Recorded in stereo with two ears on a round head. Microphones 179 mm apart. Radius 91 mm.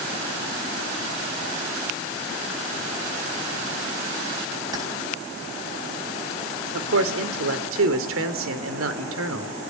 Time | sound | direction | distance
4.7 | keys jangling | 20° right (ahead or behind) | 4.5 m
6.7 | a man speaking | 75° right (ahead or behind) | 3 m